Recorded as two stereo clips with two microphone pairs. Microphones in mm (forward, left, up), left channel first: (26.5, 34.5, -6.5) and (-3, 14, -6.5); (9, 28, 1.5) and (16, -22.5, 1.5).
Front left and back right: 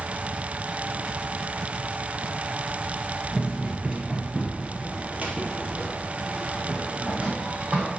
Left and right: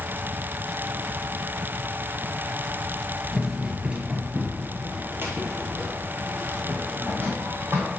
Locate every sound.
3.3 s running footsteps: 150° right, 1.4 m; by 7.9 s 100° right, 4 m